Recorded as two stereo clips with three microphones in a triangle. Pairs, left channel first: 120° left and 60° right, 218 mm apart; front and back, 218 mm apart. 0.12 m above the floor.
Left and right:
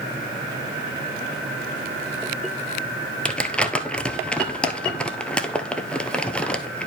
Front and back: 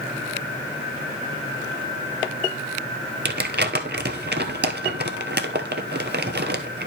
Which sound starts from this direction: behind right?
Crumpling, at 3.2 s.